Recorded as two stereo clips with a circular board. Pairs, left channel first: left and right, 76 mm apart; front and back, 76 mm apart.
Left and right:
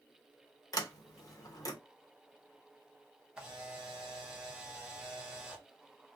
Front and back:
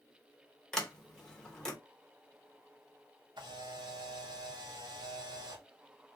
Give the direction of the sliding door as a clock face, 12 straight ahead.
9 o'clock.